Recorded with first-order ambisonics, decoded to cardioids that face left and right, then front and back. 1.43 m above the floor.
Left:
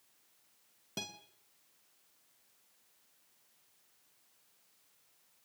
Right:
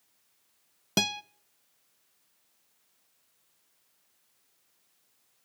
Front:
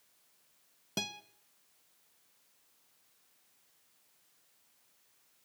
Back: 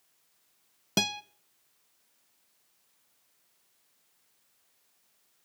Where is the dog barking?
No dog barking in this recording.